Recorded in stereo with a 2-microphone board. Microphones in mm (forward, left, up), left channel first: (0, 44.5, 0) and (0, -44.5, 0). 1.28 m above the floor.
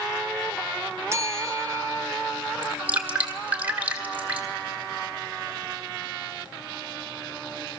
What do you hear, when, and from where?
1.1 s a bell: 30° right (ahead or behind), 1.0 m
2.6 s dripping: 15° right (ahead or behind), 1.9 m